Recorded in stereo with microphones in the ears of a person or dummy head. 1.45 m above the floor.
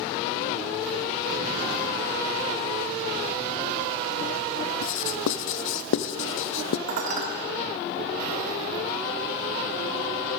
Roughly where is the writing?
Left.